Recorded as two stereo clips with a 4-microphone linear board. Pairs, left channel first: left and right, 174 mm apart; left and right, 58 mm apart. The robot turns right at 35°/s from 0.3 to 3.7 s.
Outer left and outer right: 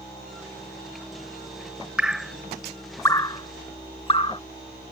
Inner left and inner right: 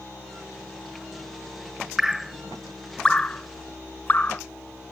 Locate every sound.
2.0 s dripping: 5° right (ahead or behind); by 4.4 s 30° left (ahead or behind)